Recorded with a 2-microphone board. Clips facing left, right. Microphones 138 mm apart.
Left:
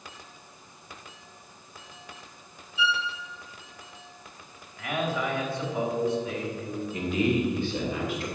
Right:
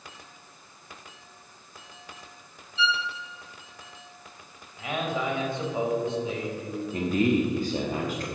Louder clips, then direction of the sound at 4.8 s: Even; 20° right (ahead or behind).